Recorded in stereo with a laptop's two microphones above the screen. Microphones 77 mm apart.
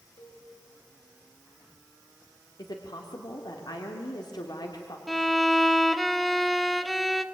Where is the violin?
Centre (ahead or behind), 1.0 m.